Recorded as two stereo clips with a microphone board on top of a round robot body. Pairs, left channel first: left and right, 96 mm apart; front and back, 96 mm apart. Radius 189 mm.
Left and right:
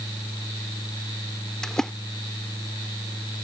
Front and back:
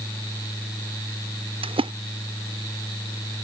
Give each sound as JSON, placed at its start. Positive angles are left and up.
{"t": 1.6, "sound": "a splash", "azimuth_deg": 175}